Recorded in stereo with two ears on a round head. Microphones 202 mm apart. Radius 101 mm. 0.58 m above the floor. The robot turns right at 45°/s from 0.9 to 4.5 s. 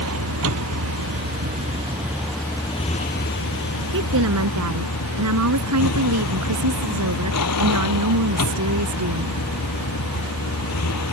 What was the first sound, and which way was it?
A vehicle, 60° right.